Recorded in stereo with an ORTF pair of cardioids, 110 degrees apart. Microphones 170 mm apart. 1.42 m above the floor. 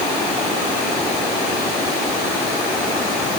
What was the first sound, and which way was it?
Only background noise.